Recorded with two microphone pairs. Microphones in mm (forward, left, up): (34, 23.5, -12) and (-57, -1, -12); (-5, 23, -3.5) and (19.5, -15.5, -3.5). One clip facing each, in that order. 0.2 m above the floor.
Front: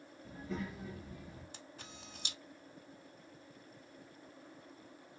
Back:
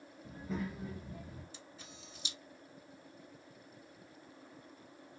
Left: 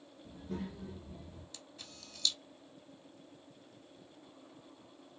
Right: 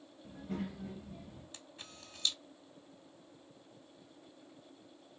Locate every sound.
0.2 s a child speaking: 100° right, 1.4 m
1.5 s a camera shutter: straight ahead, 0.8 m